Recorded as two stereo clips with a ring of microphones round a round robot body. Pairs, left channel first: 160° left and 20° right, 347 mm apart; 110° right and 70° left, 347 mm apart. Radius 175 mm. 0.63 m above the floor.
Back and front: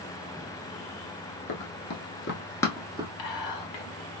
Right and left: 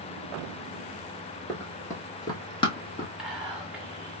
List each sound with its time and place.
1.5 s running footsteps: 165° left, 0.9 m; by 3.1 s 65° right, 0.6 m
3.2 s whispering: 155° left, 1.2 m